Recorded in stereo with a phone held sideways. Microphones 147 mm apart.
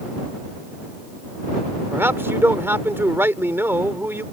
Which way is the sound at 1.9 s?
15° right (ahead or behind).